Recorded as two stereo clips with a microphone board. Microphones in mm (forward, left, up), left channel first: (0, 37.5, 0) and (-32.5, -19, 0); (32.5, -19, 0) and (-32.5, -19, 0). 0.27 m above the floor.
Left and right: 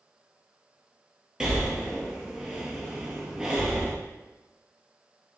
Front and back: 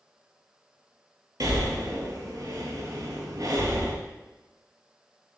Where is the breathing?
160° left, 0.9 m.